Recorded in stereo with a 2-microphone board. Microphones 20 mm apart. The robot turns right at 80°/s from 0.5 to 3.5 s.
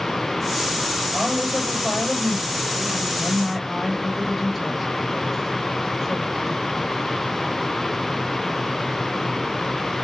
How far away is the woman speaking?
About 6.5 m.